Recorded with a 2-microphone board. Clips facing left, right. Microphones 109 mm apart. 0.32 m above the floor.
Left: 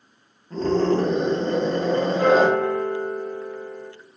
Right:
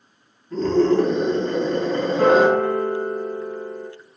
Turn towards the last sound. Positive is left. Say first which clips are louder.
# right 3 dB
turn(degrees=-45)  # may be behind; listen again after turning